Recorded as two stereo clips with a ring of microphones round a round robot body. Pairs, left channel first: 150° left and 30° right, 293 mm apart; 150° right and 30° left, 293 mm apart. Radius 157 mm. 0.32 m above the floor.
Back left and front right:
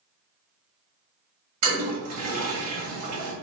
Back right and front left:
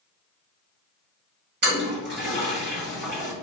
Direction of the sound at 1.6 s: 20° right.